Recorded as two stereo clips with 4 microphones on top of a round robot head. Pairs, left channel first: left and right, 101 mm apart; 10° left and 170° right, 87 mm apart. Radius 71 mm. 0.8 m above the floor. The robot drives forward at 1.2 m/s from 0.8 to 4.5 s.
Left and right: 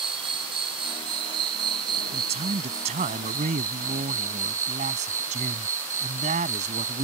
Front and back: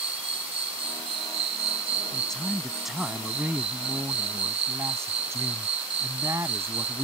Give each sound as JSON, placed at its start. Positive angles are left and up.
{"t": 0.0, "sound": "an insect", "azimuth_deg": -140}
{"t": 2.1, "sound": "a man speaking", "azimuth_deg": -75}